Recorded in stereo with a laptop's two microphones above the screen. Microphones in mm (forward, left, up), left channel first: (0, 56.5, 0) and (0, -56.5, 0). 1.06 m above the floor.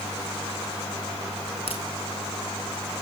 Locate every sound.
1.7 s a crack: 60° left (ahead or behind), 5 m